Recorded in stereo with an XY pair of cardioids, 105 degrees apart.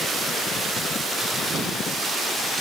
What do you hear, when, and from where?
Only background noise.